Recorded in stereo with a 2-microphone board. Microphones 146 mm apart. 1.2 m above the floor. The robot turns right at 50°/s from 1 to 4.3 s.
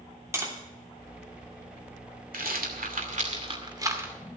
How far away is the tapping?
About 3 m.